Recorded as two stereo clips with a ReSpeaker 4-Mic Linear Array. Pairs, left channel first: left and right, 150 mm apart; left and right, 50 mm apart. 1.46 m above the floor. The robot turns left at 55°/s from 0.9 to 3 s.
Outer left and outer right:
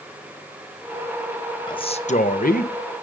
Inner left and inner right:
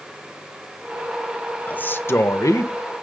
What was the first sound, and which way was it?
A man speaking, 150° left.